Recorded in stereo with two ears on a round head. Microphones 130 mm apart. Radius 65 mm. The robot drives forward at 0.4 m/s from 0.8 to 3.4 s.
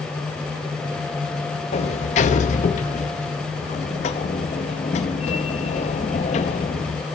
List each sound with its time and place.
1.7 s a sliding door: 45° left (ahead or behind), 0.8 m